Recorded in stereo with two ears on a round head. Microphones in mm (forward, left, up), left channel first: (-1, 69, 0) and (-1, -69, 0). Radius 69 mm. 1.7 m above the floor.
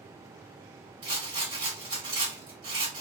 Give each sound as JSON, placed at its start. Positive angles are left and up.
{"t": 1.0, "sound": "a rattle", "side_deg": -35, "distance_m": 1.9}